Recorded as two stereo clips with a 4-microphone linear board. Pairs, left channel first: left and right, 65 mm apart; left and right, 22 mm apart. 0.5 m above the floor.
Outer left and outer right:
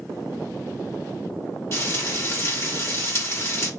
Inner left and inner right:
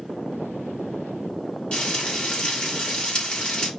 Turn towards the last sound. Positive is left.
turn(degrees=45)  # may be behind; listen again after turning